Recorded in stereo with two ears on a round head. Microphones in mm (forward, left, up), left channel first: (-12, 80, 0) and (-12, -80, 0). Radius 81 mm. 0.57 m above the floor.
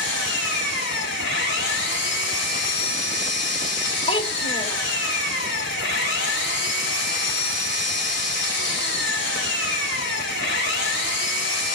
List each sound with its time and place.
0.0 s an engine running: 70° left (ahead or behind), 2 m
4.1 s a child speaking: 30° left (ahead or behind), 0.8 m